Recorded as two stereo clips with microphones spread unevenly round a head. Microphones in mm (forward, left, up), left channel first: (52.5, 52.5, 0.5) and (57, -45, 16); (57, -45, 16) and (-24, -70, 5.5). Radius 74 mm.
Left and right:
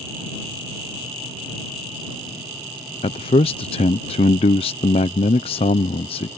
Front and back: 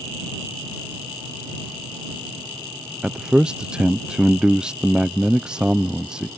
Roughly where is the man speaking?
Behind left.